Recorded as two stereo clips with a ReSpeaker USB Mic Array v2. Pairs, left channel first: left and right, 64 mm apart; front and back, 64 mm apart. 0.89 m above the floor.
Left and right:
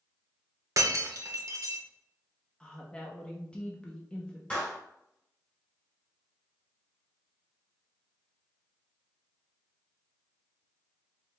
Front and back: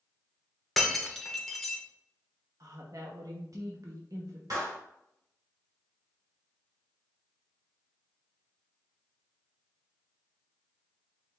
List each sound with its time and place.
0.8 s breaking glass: 85° right, 0.8 m
2.6 s a woman speaking: 165° left, 0.8 m
4.5 s a clap: 160° left, 1.9 m